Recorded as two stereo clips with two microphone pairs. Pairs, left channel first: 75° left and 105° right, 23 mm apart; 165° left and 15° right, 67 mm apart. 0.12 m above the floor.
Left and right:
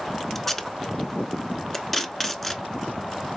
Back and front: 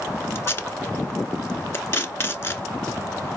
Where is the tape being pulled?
155° left, 0.8 m.